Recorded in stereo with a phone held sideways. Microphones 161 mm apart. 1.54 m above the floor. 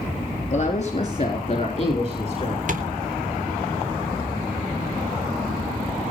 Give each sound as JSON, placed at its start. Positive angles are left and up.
{"t": 0.5, "sound": "a woman speaking", "side_deg": 40, "distance_m": 3.5}
{"t": 2.7, "sound": "tapping", "side_deg": -50, "distance_m": 3.5}